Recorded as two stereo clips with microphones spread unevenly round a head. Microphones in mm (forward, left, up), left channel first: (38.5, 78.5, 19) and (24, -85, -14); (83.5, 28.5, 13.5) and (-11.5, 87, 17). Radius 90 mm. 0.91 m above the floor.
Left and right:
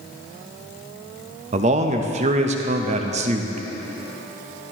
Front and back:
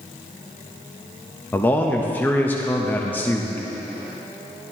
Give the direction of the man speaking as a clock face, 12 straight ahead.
3 o'clock.